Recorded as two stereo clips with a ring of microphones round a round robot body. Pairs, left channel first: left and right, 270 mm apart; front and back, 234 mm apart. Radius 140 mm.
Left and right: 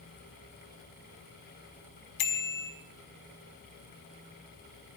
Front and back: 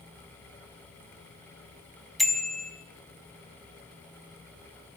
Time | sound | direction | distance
2.2 | a bicycle bell | 90° left | 4 m